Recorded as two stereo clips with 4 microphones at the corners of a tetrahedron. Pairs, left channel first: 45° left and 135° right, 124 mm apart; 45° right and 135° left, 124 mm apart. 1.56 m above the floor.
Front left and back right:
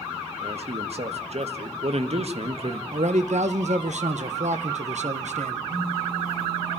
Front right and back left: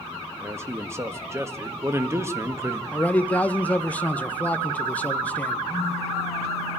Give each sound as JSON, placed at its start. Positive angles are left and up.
{"t": 0.4, "sound": "a man speaking", "azimuth_deg": -160, "distance_m": 1.7}
{"t": 2.9, "sound": "a man speaking", "azimuth_deg": -125, "distance_m": 1.5}
{"t": 5.7, "sound": "a phone buzzing", "azimuth_deg": -165, "distance_m": 9.0}